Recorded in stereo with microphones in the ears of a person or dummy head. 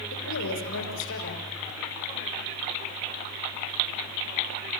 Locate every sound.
0.1 s a woman speaking: 70° left (ahead or behind), 6 m